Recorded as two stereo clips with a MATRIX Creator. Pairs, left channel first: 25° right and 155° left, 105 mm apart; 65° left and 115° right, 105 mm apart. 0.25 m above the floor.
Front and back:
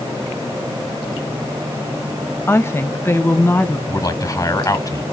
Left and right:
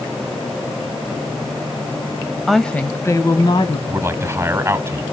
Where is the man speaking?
55° right, 2.0 m.